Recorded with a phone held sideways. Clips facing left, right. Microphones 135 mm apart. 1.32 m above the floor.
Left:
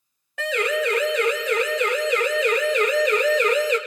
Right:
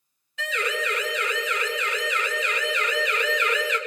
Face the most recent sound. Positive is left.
turn(degrees=40)  # may be behind; listen again after turning